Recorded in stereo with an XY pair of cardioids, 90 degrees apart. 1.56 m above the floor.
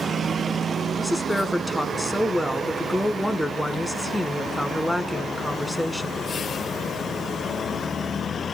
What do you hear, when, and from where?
1.0 s a woman speaking: straight ahead, 1.1 m